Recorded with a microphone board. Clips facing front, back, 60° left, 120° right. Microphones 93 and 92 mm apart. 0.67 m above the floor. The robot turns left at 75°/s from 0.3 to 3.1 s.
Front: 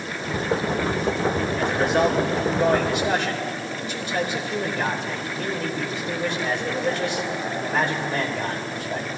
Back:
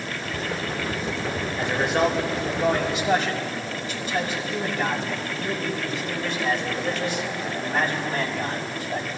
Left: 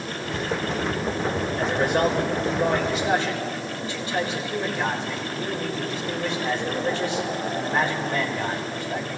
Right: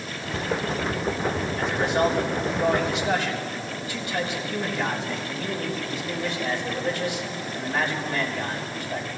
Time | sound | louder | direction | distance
1.6 | a man speaking | front 1 dB, left 1 dB | 115° left | 3.5 m